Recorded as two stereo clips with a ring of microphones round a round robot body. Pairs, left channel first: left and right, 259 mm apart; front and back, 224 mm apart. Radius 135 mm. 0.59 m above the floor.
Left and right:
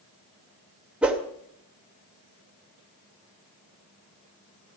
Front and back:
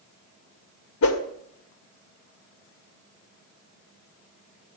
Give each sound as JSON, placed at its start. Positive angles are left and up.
{"t": 1.0, "sound": "a whoosh", "azimuth_deg": -5, "distance_m": 2.5}